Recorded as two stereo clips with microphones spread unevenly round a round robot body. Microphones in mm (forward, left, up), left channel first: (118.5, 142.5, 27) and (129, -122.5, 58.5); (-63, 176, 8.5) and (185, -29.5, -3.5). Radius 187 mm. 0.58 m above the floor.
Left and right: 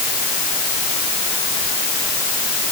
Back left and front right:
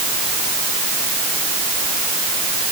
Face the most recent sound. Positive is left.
No sound to turn to.